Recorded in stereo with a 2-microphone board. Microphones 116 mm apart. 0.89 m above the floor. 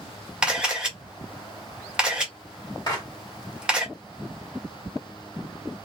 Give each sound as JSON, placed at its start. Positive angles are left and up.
{"t": 0.4, "sound": "a camera shutter", "side_deg": -10, "distance_m": 1.8}
{"t": 2.9, "sound": "a clap", "side_deg": 35, "distance_m": 2.0}